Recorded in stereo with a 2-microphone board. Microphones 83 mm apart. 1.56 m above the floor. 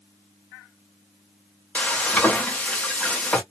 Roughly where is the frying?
Centre.